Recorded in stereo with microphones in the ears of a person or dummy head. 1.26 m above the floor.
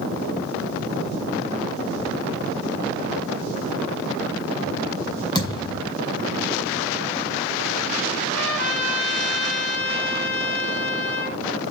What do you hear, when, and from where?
5.3 s a thud: 25° left (ahead or behind), 3.5 m
8.3 s a trumpet: 70° left (ahead or behind), 5 m